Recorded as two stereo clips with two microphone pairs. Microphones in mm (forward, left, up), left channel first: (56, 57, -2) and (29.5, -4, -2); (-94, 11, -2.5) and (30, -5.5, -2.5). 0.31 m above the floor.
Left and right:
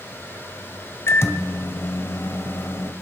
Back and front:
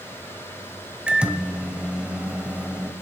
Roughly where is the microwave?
Left.